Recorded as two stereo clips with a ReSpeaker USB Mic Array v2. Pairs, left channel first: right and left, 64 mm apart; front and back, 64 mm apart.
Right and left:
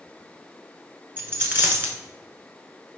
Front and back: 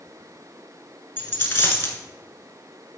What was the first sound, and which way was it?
A dropped coin, 45° left.